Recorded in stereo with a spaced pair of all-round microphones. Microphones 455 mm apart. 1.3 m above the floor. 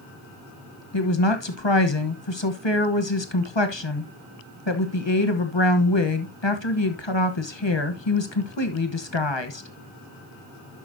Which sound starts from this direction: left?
A woman speaking, at 0.9 s.